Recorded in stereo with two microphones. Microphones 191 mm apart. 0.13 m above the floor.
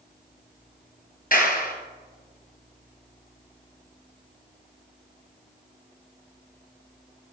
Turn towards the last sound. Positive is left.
turn(degrees=50)  # may be behind; listen again after turning